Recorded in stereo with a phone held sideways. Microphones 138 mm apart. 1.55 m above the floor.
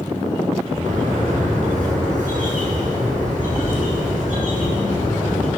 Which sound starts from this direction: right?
A bird, at 0.8 s.